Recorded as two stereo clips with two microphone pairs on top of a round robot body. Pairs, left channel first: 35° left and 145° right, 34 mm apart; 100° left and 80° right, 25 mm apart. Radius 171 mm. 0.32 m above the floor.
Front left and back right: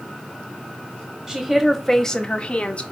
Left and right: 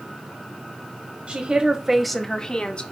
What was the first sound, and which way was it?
A woman speaking, 65° right.